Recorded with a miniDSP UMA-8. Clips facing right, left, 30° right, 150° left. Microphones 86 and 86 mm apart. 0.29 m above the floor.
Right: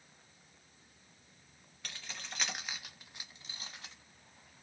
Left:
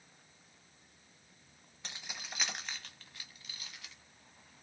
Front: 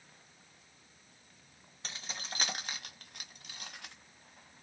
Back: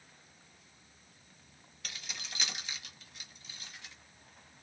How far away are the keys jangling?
About 1.1 m.